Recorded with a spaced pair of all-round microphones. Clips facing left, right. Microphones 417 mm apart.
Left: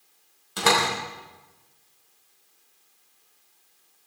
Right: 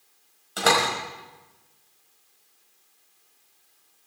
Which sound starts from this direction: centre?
A door slam, at 0.6 s.